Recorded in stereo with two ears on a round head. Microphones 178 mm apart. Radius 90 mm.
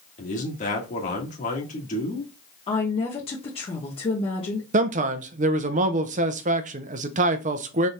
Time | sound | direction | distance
0.2 | a man speaking | 40° left (ahead or behind) | 1.6 m
2.7 | a woman speaking | 30° left (ahead or behind) | 0.9 m
4.7 | a man speaking | 40° right (ahead or behind) | 0.5 m